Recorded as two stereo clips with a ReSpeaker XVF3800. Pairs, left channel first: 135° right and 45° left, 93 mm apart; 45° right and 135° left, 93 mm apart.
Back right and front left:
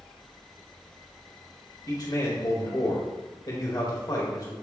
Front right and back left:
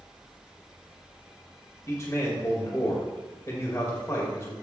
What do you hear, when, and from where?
1.9 s a man speaking: 100° right, 2.0 m